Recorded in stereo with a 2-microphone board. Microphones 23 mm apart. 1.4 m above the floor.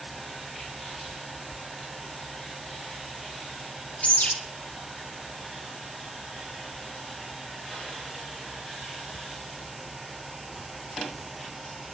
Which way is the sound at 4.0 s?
80° left.